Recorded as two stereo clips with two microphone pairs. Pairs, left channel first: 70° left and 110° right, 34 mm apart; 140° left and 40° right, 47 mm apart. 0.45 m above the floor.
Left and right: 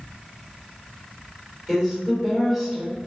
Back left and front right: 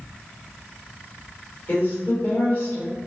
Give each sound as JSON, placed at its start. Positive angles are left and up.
{"t": 1.7, "sound": "a woman speaking", "azimuth_deg": 160, "distance_m": 1.5}